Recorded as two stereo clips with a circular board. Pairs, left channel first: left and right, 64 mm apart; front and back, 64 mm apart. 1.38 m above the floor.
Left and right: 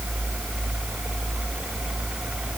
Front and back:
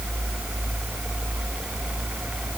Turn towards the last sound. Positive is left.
No sound to turn to.